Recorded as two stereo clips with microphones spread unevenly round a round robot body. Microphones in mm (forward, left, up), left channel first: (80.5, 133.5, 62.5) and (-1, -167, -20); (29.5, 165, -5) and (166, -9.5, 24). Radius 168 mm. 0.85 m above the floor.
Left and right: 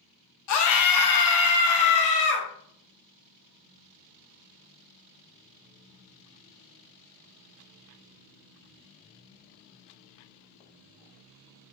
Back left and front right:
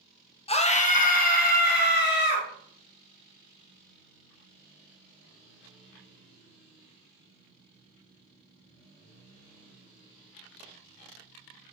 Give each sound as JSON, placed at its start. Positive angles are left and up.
{"t": 0.5, "sound": "a scream", "azimuth_deg": 90, "distance_m": 1.1}